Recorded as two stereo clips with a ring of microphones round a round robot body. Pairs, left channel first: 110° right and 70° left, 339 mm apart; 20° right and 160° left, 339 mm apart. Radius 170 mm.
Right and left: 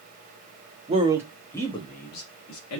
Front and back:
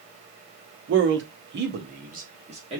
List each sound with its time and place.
0.9 s a man speaking: 130° left, 0.9 m; by 2.8 s 135° right, 1.1 m